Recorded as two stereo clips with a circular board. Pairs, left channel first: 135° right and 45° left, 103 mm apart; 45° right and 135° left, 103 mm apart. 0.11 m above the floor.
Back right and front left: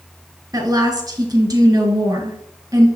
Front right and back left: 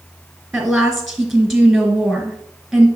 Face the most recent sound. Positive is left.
turn(degrees=50)